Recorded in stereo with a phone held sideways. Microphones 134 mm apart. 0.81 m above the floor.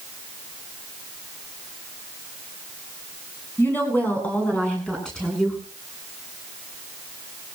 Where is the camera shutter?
No camera shutter in this recording.